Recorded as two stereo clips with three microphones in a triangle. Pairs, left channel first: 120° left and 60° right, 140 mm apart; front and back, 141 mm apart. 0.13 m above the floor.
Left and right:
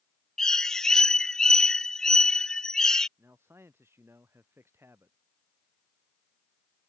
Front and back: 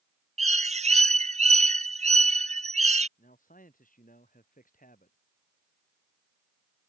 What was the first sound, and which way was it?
A bird, 155° right.